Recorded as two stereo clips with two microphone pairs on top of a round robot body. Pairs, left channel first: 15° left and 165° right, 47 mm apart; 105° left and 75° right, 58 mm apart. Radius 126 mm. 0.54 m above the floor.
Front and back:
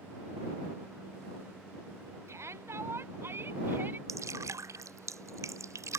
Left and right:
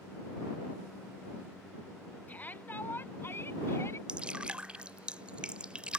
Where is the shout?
165° left; by 4.0 s 145° left.